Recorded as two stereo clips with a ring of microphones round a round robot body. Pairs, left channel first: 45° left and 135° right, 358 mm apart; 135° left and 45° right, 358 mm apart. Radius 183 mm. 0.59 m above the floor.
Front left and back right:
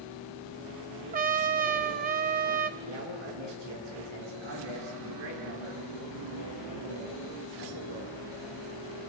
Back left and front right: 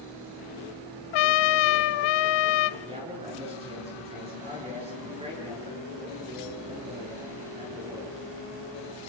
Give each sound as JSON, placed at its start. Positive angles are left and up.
{"t": 1.1, "sound": "a trumpet", "azimuth_deg": 155, "distance_m": 0.8}
{"t": 2.8, "sound": "a man speaking", "azimuth_deg": -120, "distance_m": 9.5}